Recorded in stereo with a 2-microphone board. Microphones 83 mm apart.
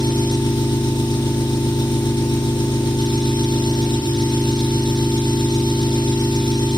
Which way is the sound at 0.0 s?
70° left (ahead or behind).